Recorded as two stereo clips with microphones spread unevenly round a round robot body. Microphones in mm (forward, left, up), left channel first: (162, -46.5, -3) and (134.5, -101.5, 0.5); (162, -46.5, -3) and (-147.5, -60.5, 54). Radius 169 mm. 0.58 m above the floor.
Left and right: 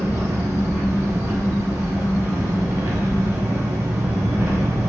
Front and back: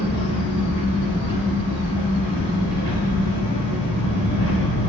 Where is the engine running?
70° right, 1.1 m.